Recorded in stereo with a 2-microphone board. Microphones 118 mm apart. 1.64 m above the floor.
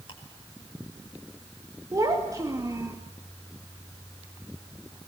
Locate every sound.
0.1 s ticking: 45° left (ahead or behind), 5.5 m
1.9 s a child speaking: 30° right (ahead or behind), 2.5 m